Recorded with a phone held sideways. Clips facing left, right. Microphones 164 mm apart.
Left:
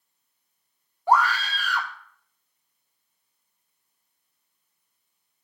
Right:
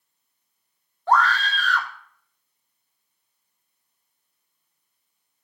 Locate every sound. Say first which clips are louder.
1.1 s a scream: right 1 dB; 10° left (ahead or behind), 1.4 m